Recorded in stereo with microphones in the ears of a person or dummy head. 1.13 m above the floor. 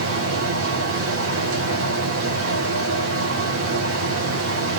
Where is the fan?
65° right (ahead or behind), 1.8 m.